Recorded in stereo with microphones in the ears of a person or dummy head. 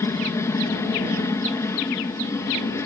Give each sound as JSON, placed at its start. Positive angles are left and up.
{"t": 0.0, "sound": "a helicopter", "side_deg": 10}